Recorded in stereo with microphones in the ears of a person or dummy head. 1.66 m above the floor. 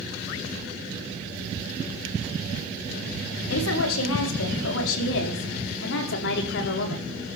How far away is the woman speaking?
About 4.5 m.